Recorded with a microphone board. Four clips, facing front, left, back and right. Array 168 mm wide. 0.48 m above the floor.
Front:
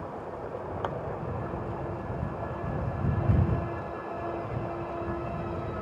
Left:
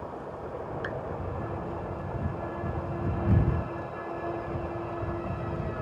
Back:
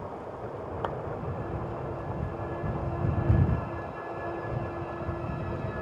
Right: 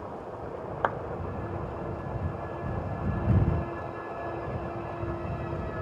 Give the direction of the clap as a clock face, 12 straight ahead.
3 o'clock.